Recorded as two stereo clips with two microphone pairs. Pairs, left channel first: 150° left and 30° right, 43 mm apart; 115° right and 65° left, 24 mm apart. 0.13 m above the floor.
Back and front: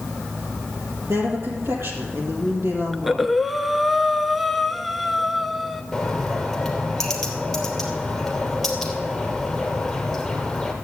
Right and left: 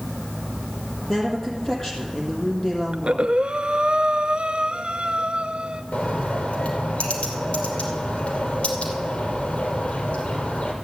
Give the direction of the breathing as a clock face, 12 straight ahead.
10 o'clock.